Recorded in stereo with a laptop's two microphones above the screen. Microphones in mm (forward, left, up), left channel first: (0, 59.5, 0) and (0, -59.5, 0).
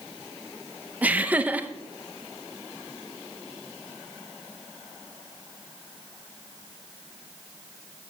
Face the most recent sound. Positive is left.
turn(degrees=-15)  # may be behind; listen again after turning